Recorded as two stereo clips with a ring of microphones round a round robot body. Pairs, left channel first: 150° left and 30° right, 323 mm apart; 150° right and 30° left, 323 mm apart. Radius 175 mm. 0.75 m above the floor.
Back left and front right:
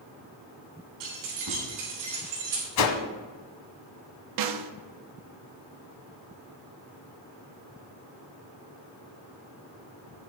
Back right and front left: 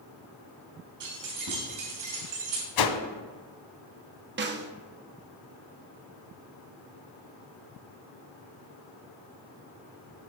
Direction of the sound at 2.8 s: 175° right.